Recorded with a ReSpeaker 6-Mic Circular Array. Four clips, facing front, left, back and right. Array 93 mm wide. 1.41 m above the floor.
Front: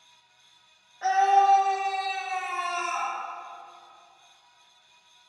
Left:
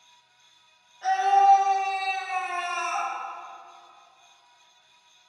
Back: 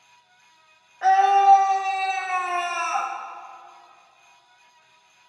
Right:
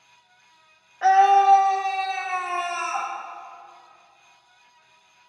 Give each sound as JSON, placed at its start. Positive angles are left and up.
{"t": 1.0, "sound": "a scream", "azimuth_deg": -115, "distance_m": 1.9}